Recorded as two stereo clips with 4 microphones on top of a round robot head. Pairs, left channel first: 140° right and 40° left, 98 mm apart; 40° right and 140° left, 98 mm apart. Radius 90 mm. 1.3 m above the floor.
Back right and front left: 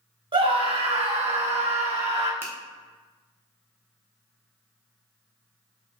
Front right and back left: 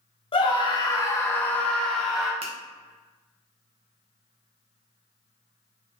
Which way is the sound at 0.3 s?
Straight ahead.